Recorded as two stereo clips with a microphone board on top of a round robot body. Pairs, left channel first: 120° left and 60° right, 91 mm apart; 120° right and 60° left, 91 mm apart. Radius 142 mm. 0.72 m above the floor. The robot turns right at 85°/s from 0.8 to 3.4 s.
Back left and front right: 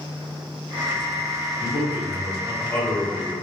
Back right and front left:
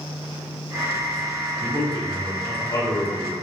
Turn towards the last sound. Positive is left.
turn(degrees=-115)